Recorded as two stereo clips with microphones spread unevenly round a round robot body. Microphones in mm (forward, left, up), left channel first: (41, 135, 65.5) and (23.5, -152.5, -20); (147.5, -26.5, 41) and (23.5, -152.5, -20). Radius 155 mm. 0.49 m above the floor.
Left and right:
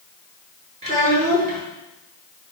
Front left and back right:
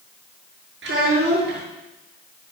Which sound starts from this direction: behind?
A child speaking, at 0.8 s.